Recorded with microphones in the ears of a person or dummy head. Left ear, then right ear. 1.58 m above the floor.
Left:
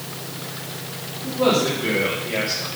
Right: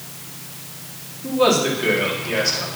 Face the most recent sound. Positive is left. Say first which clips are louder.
# right 2 dB
turn(degrees=-85)